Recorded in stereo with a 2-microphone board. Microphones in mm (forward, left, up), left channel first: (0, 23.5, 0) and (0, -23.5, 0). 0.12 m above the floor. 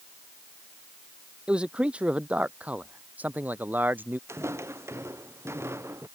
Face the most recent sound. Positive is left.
turn(degrees=-60)  # may be behind; listen again after turning